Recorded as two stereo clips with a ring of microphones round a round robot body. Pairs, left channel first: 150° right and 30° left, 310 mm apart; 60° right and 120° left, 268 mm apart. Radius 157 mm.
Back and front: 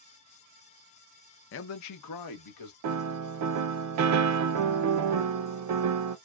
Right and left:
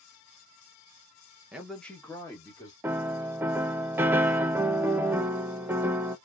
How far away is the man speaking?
About 0.5 m.